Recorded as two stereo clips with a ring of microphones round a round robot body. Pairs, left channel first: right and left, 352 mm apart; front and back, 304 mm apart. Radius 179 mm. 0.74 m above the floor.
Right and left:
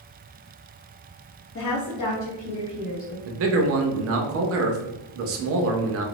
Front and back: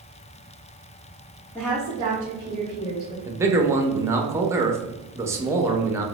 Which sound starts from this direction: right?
A woman speaking, at 1.6 s.